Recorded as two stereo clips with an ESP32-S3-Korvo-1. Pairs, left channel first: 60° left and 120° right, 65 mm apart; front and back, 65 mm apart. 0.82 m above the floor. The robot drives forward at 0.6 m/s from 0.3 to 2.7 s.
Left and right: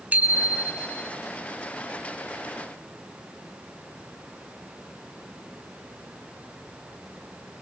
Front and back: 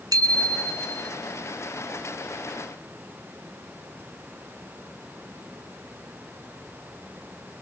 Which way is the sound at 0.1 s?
175° left.